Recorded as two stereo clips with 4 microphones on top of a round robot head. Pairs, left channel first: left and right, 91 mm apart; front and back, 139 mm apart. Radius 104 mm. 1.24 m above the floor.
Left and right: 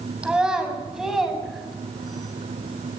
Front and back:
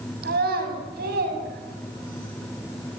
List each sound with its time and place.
0.2 s a child speaking: 170° right, 7 m; by 2.3 s straight behind, 7.5 m